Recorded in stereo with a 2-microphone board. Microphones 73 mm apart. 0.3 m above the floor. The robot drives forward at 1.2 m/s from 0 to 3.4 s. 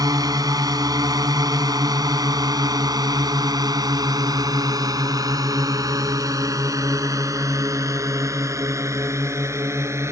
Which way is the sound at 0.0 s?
60° right (ahead or behind).